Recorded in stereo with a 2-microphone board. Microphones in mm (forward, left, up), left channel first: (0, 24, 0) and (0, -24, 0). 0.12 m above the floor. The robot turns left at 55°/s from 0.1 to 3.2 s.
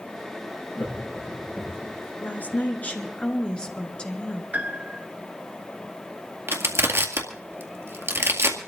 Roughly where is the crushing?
Right.